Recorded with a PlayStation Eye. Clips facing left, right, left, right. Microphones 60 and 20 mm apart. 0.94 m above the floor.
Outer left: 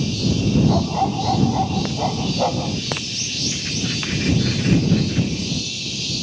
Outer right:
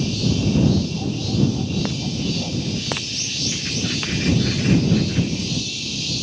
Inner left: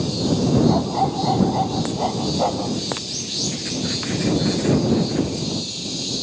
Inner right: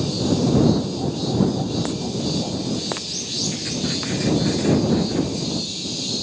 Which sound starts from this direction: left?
A dog barking, at 0.7 s.